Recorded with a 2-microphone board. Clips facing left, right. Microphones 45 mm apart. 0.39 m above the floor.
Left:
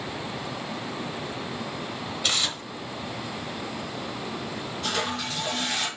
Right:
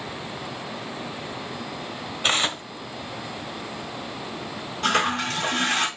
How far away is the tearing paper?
About 1.0 m.